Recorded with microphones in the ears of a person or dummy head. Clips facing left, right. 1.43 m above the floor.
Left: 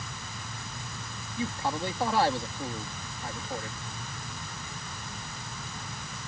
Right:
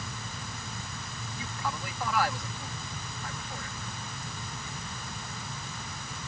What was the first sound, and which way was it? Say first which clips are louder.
A man speaking: left 6 dB; 25° left (ahead or behind).